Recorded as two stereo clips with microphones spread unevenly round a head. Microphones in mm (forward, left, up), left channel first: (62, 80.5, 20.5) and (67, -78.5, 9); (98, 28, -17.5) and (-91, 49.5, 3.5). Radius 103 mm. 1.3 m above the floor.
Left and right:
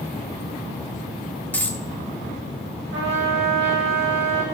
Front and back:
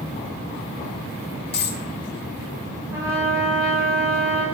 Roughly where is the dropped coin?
Ahead.